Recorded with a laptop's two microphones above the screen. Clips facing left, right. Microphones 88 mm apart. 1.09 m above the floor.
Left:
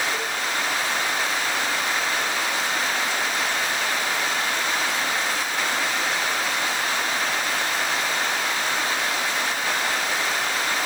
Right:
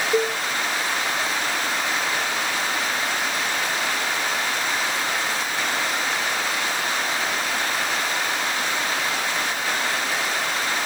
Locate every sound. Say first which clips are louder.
0.1 s a cowbell: right 7 dB; 65° right (ahead or behind), 0.7 m